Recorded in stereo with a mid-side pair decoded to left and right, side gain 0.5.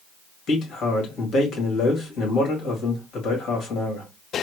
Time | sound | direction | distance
0.5 | a man speaking | 55° left | 2 m